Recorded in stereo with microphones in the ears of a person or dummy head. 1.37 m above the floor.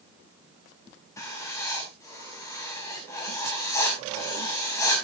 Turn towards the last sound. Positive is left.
turn(degrees=10)  # may be behind; listen again after turning